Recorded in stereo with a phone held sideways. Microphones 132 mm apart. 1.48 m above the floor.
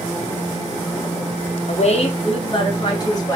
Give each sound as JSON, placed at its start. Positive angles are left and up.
{"t": 1.7, "sound": "a woman speaking", "side_deg": 60, "distance_m": 1.1}